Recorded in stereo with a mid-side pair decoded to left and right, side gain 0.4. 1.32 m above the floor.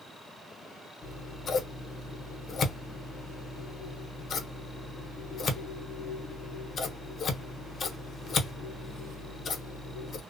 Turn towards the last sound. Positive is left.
turn(degrees=50)